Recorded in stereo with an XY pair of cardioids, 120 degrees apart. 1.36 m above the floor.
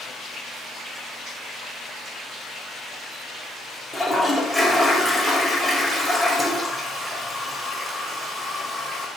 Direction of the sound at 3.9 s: 5° left.